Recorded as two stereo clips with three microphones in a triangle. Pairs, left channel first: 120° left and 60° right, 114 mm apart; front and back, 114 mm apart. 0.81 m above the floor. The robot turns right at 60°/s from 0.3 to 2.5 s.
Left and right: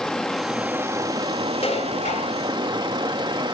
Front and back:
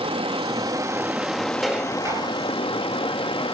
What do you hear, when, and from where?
0.0 s running water: 155° right, 1.2 m; by 3.5 s 25° right, 1.2 m
1.6 s dishes clattering: 90° left, 2.5 m; by 2.4 s 140° left, 2.5 m